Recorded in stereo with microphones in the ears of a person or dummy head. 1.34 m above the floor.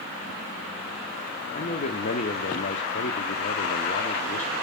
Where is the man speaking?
35° left (ahead or behind), 0.6 m.